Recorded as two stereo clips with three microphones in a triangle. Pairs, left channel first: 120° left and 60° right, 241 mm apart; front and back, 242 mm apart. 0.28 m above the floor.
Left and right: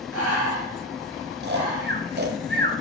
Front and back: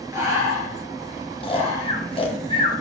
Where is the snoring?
55° right, 1.5 m.